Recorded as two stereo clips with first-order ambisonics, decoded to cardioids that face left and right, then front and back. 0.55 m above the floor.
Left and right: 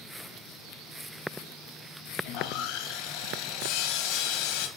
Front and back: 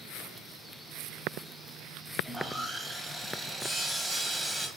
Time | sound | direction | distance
2.2 | sawing | 100° left | 2 m